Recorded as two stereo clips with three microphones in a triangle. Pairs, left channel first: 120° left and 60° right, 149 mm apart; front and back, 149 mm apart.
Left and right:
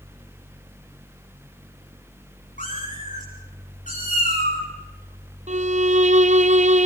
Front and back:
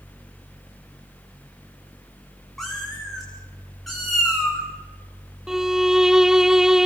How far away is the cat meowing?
About 7.5 m.